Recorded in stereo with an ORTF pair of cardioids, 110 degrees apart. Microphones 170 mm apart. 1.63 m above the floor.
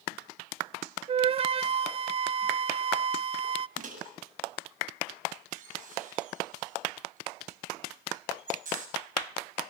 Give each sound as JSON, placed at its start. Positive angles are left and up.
{"t": 1.1, "sound": "a flute", "azimuth_deg": -35, "distance_m": 0.5}
{"t": 3.8, "sound": "a microwave", "azimuth_deg": -45, "distance_m": 7.5}